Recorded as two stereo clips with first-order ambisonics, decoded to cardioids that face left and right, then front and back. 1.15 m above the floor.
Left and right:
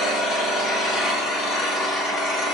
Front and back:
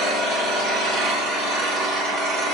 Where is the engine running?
145° left, 3 m.